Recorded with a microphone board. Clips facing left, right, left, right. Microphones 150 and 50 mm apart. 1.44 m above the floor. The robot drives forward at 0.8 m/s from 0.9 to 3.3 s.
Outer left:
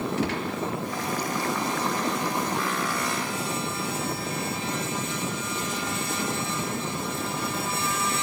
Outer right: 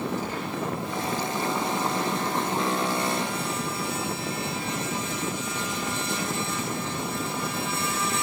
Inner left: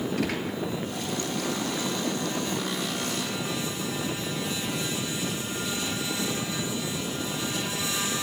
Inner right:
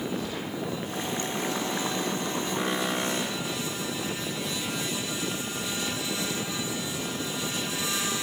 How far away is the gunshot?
About 5 m.